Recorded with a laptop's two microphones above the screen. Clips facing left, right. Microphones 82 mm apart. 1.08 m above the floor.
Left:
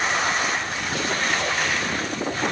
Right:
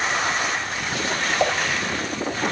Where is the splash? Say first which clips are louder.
Right 4 dB; 65° right (ahead or behind), 3.5 m.